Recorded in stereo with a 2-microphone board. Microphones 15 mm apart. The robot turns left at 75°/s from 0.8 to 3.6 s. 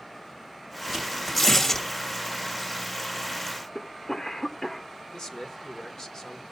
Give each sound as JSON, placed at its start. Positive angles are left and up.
{"t": 0.9, "sound": "tearing paper", "side_deg": -35, "distance_m": 2.0}
{"t": 3.8, "sound": "a cough", "side_deg": 60, "distance_m": 1.1}
{"t": 5.1, "sound": "a man speaking", "side_deg": 65, "distance_m": 1.4}